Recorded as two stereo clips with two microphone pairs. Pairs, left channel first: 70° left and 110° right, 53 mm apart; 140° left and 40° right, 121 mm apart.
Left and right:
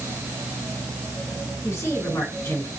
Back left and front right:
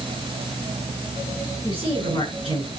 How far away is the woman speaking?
About 6.5 m.